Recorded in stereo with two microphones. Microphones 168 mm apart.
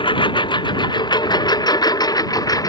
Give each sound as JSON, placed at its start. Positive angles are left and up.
{"t": 0.0, "sound": "a lawn mower", "side_deg": 30}